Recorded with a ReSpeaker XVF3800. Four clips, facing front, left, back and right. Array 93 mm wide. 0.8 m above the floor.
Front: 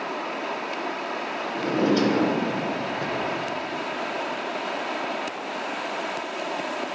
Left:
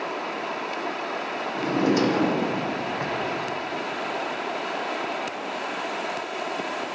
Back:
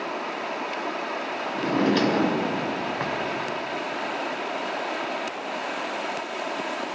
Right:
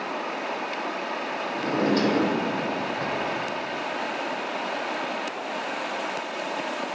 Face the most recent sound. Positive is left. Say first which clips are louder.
# left 1 dB, even
turn(degrees=165)